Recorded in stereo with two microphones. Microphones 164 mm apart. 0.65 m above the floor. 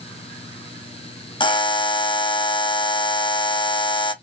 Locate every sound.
1.4 s a buzzer: 30° left (ahead or behind), 0.5 m